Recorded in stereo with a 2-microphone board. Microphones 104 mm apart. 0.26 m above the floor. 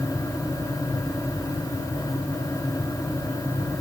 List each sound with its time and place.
Only background noise.